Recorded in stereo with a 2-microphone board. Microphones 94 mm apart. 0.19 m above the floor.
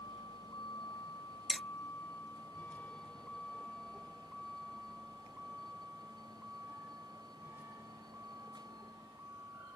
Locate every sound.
0.0 s a vehicle: 50° left (ahead or behind); by 9.8 s 25° right (ahead or behind)
1.5 s hammering: centre (ahead or behind)